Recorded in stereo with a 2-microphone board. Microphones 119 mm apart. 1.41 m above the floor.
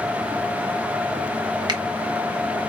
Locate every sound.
1.7 s a finger snap: 35° right (ahead or behind), 1.0 m